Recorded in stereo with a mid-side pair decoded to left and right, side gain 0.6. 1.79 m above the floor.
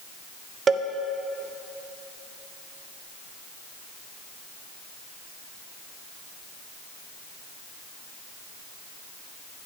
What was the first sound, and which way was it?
A cowbell, 35° right.